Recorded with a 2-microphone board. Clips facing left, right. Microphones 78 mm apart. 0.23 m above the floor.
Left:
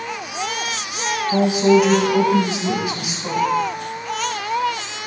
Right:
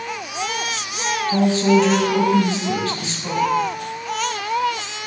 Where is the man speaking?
10° left (ahead or behind), 1.6 m.